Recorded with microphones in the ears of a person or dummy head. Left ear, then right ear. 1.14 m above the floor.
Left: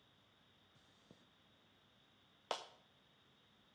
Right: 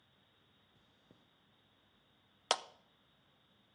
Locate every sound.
0.8 s chewing: 40° left (ahead or behind), 0.8 m
2.5 s a clap: 50° right (ahead or behind), 0.5 m